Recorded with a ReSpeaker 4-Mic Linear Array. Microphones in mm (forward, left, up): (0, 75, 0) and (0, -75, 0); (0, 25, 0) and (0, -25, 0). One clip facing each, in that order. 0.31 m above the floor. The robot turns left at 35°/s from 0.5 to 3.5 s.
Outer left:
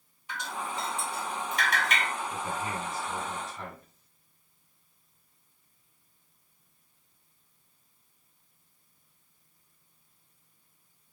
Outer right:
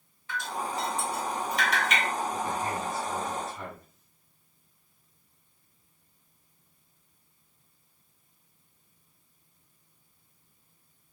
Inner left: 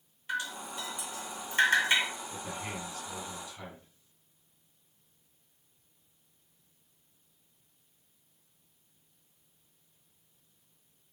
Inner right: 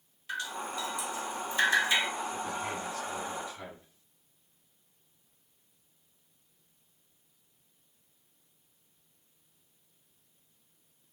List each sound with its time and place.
0.3 s dripping: 15° left (ahead or behind), 1.7 m; by 2.1 s 50° left (ahead or behind), 1.7 m
2.3 s a man speaking: 35° left, 1.8 m; by 3.9 s 5° right, 1.8 m